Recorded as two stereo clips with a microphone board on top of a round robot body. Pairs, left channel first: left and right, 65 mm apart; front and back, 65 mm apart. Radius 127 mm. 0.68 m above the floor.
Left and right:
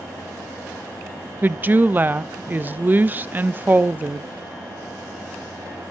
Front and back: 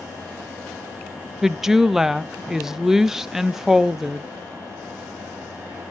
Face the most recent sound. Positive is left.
turn(degrees=-100)